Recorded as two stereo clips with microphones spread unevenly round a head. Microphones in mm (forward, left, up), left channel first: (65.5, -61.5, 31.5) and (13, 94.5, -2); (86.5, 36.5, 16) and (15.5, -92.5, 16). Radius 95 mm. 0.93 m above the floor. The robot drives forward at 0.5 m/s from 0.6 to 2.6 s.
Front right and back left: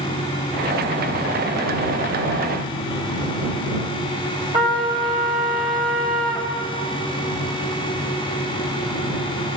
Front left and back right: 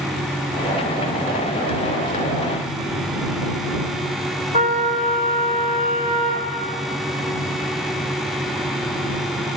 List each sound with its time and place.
4.5 s a trumpet: straight behind, 3 m